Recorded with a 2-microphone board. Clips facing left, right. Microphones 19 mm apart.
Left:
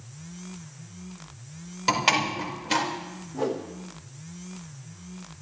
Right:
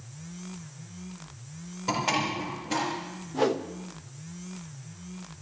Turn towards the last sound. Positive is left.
turn(degrees=-45)  # may be behind; listen again after turning